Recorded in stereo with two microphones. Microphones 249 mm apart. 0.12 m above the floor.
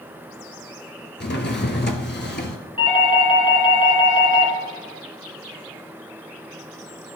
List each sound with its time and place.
1.2 s a drawer: 45° left (ahead or behind), 0.8 m
2.8 s a doorbell: 25° left (ahead or behind), 1.5 m